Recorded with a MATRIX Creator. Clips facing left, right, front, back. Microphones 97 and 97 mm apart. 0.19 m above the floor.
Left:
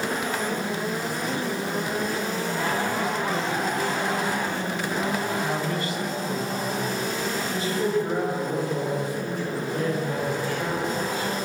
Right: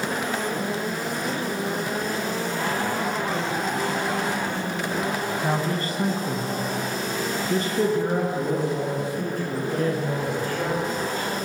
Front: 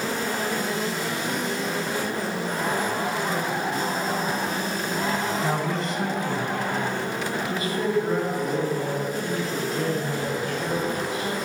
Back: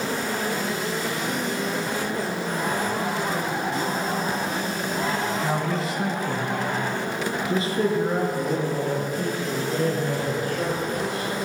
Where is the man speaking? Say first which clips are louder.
Right 2 dB, even; 75° right, 1.6 m; by 11.3 s 135° right, 6.5 m.